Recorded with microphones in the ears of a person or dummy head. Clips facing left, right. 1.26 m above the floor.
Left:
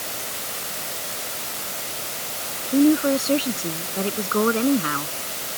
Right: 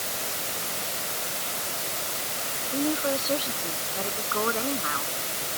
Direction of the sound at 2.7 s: 40° left (ahead or behind).